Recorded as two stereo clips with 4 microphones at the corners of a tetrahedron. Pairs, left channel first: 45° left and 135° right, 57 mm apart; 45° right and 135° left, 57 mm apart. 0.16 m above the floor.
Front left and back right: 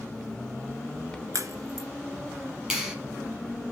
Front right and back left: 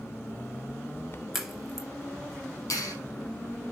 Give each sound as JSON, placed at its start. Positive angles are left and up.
{"t": 1.3, "sound": "a crack", "azimuth_deg": -140, "distance_m": 2.0}
{"t": 2.7, "sound": "a clap", "azimuth_deg": -65, "distance_m": 5.0}